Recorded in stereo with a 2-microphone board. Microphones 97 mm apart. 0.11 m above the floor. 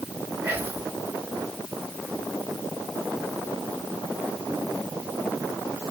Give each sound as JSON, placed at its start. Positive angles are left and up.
{"t": 0.4, "sound": "whispering", "side_deg": -15, "distance_m": 1.7}